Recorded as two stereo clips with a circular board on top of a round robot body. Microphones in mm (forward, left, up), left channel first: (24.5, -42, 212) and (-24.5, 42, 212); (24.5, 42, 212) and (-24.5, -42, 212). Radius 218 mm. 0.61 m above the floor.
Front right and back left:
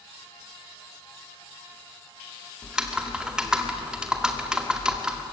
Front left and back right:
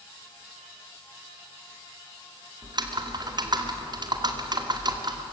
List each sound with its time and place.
2.6 s typing on a keyboard: 160° right, 2 m